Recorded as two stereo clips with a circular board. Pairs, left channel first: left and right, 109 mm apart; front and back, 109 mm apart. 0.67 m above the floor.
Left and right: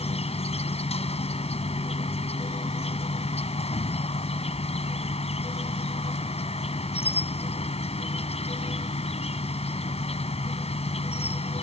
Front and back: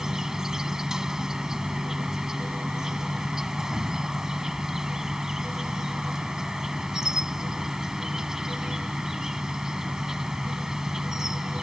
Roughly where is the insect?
Left.